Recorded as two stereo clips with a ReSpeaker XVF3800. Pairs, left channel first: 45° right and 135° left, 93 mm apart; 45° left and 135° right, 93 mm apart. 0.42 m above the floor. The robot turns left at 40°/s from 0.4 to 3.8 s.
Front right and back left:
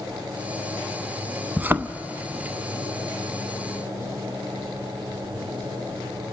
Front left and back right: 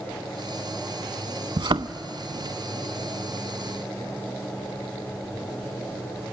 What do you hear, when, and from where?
1.6 s a thud: 155° right, 0.6 m; by 1.9 s 170° right, 0.6 m